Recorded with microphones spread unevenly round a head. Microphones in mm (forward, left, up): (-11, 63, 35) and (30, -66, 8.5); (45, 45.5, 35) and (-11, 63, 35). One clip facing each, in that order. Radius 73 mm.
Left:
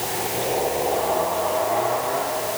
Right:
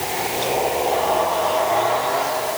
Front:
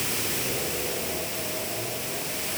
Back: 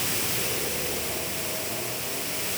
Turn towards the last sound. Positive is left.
No sound to turn to.